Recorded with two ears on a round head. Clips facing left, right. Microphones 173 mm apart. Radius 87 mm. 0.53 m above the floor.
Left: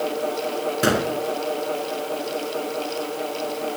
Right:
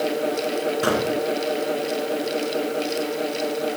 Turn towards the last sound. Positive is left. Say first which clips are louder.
# left 3 dB
turn(degrees=25)  # may be behind; listen again after turning